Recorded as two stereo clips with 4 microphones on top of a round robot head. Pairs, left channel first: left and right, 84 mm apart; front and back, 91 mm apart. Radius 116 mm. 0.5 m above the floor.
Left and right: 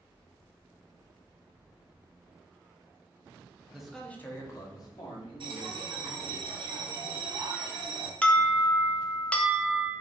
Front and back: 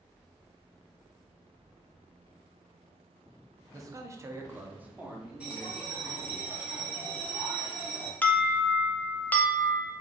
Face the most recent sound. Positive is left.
turn(degrees=35)